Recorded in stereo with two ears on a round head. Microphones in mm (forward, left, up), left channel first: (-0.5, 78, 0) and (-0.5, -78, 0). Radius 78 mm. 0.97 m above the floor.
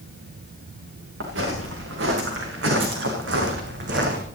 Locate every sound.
1.2 s footsteps: 80° right, 6 m; by 4.2 s 70° right (ahead or behind), 3.5 m